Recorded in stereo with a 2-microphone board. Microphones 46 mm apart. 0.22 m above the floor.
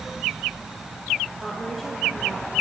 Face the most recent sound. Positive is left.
turn(degrees=0)  # may be behind; listen again after turning